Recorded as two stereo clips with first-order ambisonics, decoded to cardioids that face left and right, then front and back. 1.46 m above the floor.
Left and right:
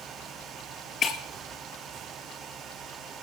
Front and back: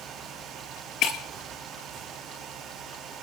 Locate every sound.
1.0 s breaking glass: 30° left, 2.5 m